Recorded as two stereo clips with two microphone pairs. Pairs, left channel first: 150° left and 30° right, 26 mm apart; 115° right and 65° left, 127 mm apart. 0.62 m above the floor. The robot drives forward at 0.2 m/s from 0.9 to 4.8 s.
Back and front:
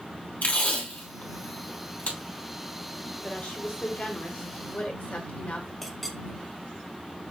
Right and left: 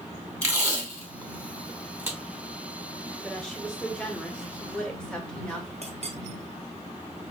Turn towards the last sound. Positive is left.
turn(degrees=55)